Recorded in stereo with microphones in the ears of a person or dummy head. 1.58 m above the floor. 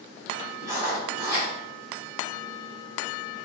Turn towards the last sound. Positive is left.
turn(degrees=-20)  # may be behind; listen again after turning